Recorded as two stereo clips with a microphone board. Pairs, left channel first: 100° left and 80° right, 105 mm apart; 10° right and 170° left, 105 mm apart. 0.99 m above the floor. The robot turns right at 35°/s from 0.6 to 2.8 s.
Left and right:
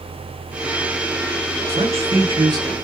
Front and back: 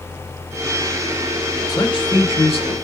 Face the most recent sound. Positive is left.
turn(degrees=-25)